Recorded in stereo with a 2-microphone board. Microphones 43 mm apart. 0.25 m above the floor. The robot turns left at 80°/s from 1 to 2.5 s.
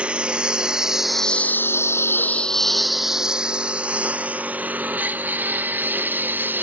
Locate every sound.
0.0 s a lawn mower: 30° right (ahead or behind); by 6.6 s 50° right (ahead or behind)